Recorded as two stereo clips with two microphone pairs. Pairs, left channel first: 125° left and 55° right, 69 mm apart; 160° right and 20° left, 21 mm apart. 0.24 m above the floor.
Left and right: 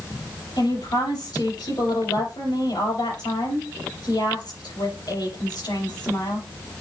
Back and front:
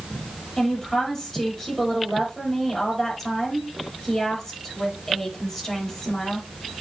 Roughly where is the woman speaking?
Behind left.